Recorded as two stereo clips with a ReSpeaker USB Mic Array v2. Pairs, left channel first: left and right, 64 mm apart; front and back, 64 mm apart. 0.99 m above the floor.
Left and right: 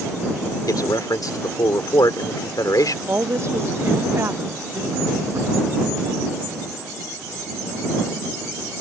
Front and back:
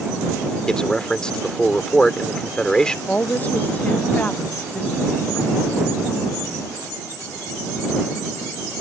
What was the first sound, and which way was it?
A man speaking, 80° left.